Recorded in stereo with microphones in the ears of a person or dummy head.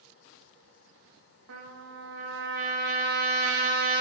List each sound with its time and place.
1.5 s a trumpet: 75° right (ahead or behind), 1.2 m